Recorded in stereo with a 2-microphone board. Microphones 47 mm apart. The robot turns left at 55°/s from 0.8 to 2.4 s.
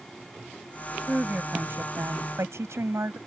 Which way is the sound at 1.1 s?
20° right.